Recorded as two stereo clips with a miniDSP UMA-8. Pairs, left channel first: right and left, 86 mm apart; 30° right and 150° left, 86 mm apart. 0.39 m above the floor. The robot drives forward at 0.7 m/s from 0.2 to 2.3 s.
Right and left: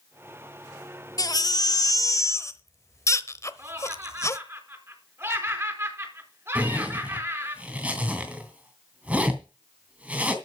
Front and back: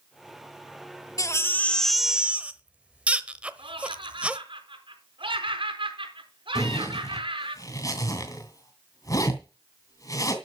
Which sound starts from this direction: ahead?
A zipper, at 6.5 s.